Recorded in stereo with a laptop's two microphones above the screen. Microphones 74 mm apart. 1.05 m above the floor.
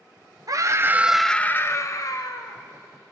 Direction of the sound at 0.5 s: 50° right (ahead or behind).